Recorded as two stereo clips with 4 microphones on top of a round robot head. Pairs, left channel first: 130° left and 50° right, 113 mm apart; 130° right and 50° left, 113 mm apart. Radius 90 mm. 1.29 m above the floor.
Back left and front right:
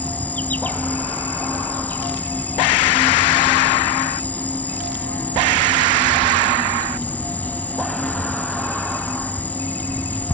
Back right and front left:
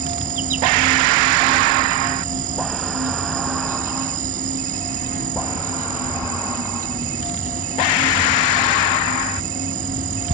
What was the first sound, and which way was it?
An insect, 50° left.